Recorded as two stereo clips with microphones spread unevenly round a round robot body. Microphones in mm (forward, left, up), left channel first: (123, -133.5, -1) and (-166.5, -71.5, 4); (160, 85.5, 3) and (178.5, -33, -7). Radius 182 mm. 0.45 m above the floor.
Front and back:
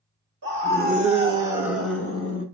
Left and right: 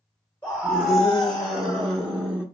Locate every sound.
0.4 s a scream: 175° left, 1.2 m; by 2.5 s 35° right, 1.1 m